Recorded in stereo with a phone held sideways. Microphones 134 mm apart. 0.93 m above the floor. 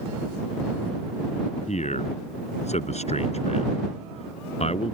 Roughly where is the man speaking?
Left.